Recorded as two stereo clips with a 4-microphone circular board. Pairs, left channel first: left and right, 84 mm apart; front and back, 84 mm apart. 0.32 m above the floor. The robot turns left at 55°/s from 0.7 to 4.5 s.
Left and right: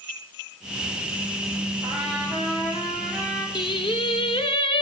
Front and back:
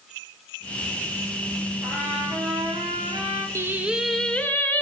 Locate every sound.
1.8 s a trumpet: 105° right, 5.5 m; by 3.5 s 165° left, 5.5 m
3.5 s singing: 120° left, 0.7 m; by 4.8 s 70° left, 0.7 m